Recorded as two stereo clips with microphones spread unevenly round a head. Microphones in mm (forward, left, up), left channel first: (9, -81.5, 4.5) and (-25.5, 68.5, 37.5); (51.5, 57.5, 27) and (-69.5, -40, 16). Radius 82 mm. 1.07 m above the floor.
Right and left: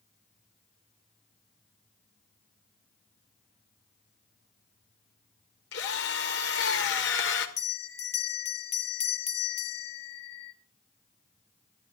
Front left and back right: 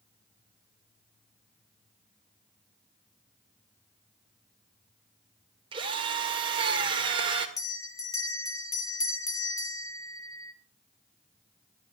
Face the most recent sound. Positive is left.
turn(degrees=-30)